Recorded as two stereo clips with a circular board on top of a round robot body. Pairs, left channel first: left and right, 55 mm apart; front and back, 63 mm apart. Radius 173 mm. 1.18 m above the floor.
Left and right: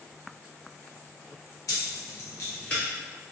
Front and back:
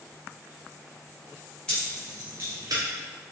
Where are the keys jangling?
75° left, 1.0 m; by 2.8 s 165° left, 0.6 m.